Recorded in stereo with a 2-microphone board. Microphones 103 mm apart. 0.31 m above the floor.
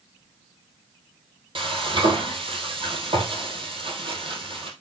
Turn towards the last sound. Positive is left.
turn(degrees=-55)  # may be behind; listen again after turning